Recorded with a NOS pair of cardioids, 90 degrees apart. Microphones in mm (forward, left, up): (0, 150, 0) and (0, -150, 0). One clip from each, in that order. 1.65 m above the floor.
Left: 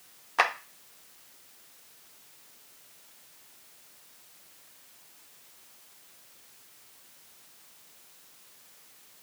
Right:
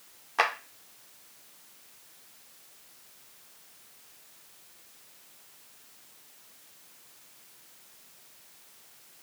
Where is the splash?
I don't hear a splash.